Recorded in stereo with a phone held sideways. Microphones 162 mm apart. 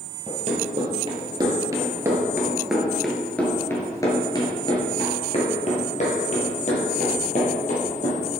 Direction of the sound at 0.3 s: 40° right (ahead or behind).